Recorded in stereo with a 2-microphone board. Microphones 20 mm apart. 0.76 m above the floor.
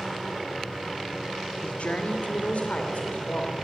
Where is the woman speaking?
70° left (ahead or behind), 2.0 m; by 3.5 s 75° left (ahead or behind), 3.5 m.